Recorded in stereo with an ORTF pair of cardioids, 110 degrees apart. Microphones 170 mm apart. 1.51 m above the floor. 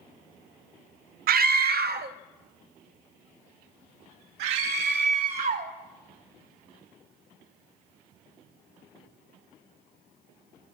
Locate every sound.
1.3 s a scream: 65° right, 0.5 m; by 5.7 s 70° right, 3.5 m